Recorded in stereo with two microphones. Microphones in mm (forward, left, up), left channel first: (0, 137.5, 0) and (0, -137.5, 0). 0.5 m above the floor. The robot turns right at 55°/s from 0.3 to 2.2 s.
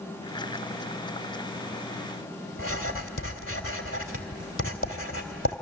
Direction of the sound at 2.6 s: 50° left (ahead or behind).